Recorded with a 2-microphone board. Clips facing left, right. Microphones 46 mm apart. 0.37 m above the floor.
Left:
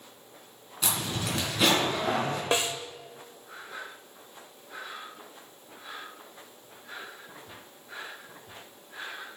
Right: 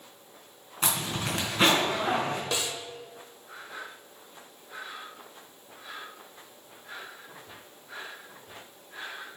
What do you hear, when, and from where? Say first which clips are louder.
0.8 s a zipper: right 1 dB; 35° right (ahead or behind), 3.5 m
2.5 s a snare drum: left 4 dB; 35° left (ahead or behind), 0.8 m